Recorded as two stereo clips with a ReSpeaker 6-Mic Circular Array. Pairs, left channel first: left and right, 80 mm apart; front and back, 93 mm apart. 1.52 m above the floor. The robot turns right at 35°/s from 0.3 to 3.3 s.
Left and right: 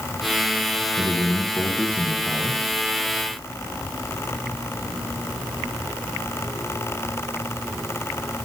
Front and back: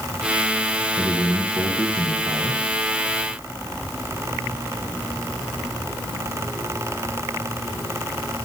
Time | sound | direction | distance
1.0 | a man speaking | 105° left | 1.2 m